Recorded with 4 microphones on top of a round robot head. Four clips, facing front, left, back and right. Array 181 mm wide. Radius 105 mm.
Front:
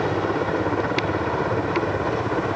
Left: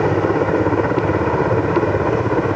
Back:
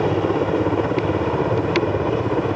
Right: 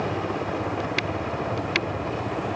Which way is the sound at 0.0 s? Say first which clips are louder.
Left 11 dB, back 3 dB; 120° left.